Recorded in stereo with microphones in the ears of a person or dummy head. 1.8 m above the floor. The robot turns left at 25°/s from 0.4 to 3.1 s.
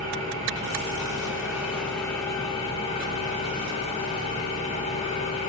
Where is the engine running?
150° right, 0.8 m; by 5.5 s 145° left, 0.8 m.